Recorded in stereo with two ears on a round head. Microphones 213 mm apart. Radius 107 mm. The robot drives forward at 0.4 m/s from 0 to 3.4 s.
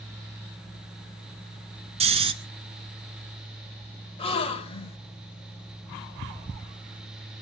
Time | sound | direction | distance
2.0 | snoring | 25° right (ahead or behind) | 1.1 m
4.2 | a gasp | 25° left (ahead or behind) | 1.3 m